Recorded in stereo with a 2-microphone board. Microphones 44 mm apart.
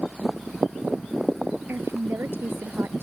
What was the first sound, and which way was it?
A woman speaking, 70° right (ahead or behind).